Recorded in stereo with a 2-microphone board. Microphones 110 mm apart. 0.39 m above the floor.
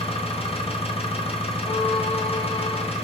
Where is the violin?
85° left, 7 m.